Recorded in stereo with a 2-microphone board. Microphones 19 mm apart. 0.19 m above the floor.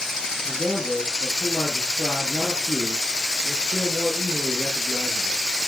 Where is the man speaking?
45° right (ahead or behind), 8 m.